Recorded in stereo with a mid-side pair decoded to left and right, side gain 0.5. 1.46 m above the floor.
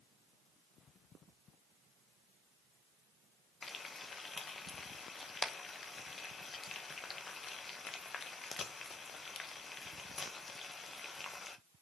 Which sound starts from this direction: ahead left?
Frying, at 3.6 s.